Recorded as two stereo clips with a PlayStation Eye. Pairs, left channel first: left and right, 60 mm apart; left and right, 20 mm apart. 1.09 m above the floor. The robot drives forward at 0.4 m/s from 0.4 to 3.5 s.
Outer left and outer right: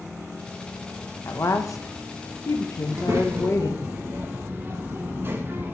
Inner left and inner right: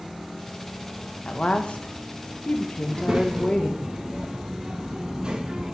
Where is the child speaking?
55° right (ahead or behind), 0.7 m; by 5.8 s 40° right (ahead or behind), 0.9 m.